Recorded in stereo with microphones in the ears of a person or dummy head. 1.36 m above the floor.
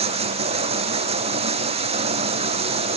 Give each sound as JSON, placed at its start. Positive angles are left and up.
{"t": 0.0, "sound": "running water", "side_deg": -35}